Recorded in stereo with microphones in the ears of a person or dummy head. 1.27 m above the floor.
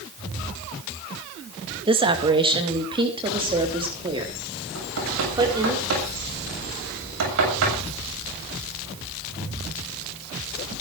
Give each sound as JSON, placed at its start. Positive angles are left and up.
{"t": 1.9, "sound": "a woman speaking", "side_deg": -25, "distance_m": 2.0}
{"t": 4.8, "sound": "knocking", "side_deg": -75, "distance_m": 7.5}